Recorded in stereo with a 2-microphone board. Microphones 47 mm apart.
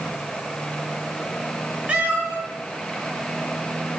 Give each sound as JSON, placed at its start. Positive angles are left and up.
{"t": 1.9, "sound": "a cat meowing", "side_deg": -25, "distance_m": 6.5}